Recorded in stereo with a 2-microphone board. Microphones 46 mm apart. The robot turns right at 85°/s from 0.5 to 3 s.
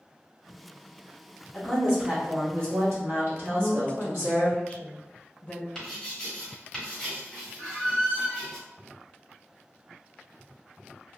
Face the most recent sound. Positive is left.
turn(degrees=-60)  # may be behind; listen again after turning